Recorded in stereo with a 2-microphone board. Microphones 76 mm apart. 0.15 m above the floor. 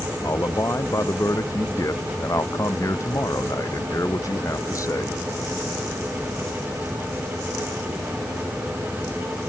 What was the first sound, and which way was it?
A man speaking, 45° left (ahead or behind).